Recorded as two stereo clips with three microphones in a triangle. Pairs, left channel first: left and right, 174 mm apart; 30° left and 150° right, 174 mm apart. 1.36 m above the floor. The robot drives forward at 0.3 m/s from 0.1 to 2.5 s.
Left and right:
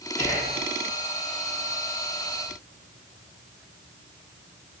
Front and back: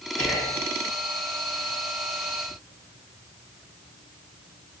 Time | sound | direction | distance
0.2 | whispering | 140° right | 1.5 m